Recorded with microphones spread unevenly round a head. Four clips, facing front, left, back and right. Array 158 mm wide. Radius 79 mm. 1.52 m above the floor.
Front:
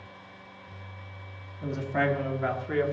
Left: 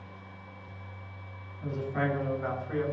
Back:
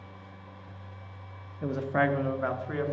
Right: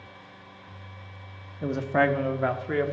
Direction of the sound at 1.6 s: 120° right.